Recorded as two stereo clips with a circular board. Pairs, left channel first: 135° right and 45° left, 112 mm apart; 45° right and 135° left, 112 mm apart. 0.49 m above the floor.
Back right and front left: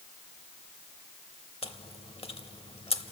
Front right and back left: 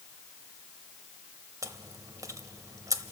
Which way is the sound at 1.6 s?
165° right.